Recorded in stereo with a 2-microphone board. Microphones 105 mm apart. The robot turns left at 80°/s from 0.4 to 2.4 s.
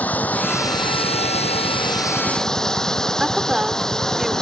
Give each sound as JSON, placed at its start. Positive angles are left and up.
{"t": 0.0, "sound": "running water", "azimuth_deg": 165}
{"t": 3.2, "sound": "a woman speaking", "side_deg": -5}